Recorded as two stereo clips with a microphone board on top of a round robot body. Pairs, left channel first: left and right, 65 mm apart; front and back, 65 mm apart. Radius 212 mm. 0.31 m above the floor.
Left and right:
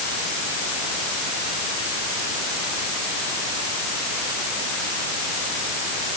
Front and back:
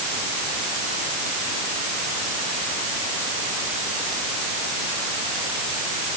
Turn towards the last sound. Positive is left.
No sound to turn to.